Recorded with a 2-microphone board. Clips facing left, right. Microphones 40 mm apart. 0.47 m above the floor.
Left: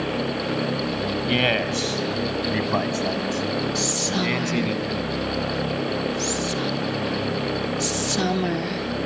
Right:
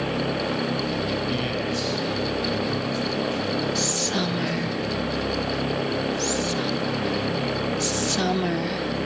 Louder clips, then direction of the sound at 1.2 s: Left 5 dB; 55° left (ahead or behind).